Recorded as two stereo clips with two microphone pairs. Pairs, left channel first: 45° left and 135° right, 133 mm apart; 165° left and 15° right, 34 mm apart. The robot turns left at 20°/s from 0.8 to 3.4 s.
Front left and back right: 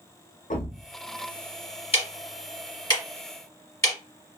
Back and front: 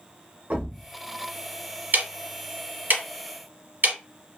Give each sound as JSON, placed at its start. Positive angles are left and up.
{"t": 0.5, "sound": "a thud", "azimuth_deg": 30, "distance_m": 0.7}
{"t": 1.9, "sound": "ticking", "azimuth_deg": 5, "distance_m": 1.0}